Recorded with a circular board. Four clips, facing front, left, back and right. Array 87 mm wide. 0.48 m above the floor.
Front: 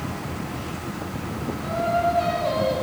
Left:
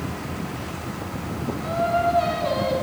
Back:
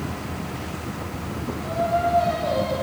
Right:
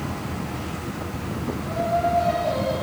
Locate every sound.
1.6 s singing: 60° left, 3 m